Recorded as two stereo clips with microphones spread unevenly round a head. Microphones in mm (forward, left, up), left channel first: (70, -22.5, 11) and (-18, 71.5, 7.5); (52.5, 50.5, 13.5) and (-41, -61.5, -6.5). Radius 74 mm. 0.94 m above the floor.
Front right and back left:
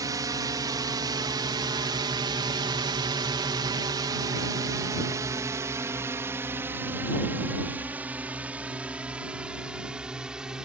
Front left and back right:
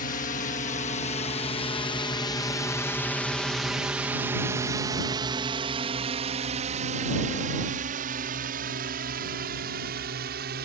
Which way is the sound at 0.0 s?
80° left.